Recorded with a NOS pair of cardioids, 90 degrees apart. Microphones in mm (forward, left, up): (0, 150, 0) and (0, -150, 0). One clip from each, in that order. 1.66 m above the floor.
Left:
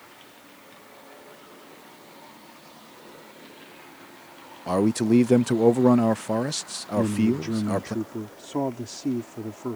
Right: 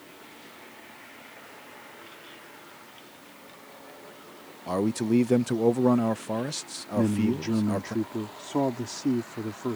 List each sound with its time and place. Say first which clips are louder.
4.7 s a man speaking: left 4 dB; 20° left
7.0 s a man speaking: left 2 dB; 5° right